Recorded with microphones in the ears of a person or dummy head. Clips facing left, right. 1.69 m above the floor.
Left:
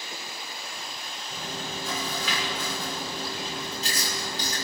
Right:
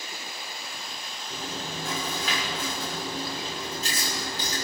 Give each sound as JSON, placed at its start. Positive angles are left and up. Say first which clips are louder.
{"t": 1.3, "sound": "chewing", "louder": "right 1 dB", "side_deg": -40, "distance_m": 6.5}